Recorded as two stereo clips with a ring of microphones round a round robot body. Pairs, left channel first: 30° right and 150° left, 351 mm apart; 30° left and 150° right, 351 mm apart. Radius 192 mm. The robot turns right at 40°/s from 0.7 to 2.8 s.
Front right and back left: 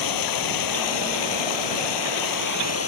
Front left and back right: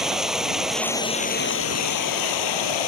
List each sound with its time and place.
0.0 s running water: 60° right; by 2.9 s 25° left